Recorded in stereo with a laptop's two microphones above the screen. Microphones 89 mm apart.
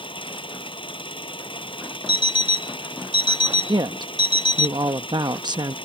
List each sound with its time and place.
0.0 s an engine running: 70° left (ahead or behind)
2.1 s an alarm clock: 65° left (ahead or behind)
3.7 s a woman speaking: 55° right (ahead or behind)